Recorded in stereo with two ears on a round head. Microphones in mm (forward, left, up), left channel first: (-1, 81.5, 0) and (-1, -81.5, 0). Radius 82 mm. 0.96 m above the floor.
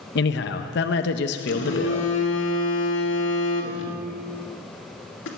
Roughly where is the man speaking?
Left.